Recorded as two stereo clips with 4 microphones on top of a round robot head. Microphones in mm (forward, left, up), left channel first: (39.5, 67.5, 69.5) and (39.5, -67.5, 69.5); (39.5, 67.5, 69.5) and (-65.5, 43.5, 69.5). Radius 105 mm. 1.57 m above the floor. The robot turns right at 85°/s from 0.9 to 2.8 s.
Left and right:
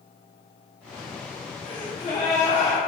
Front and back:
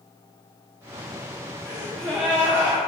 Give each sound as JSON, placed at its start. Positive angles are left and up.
{"t": 1.6, "sound": "a gasp", "azimuth_deg": 60, "distance_m": 0.6}